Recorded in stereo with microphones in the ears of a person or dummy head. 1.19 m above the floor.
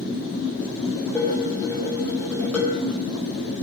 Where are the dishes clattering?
10° left (ahead or behind), 4.5 m.